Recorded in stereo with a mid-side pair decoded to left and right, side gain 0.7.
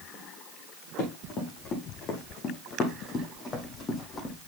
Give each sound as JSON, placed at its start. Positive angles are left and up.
{"t": 1.0, "sound": "running footsteps", "azimuth_deg": 55, "distance_m": 5.0}